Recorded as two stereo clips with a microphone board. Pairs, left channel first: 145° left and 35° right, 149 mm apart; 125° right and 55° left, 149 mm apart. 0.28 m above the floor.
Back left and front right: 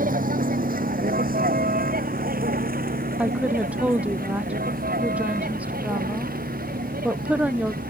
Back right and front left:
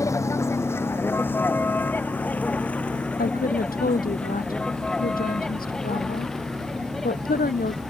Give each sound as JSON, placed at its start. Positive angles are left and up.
{"t": 0.0, "sound": "a vehicle", "azimuth_deg": -55}
{"t": 3.2, "sound": "a woman speaking", "azimuth_deg": -115}